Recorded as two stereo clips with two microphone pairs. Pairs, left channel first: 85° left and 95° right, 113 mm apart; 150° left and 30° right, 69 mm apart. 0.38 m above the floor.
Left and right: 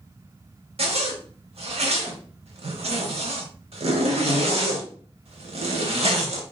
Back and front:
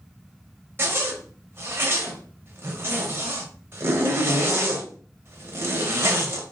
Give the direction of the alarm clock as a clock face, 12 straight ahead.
No alarm clock in this recording.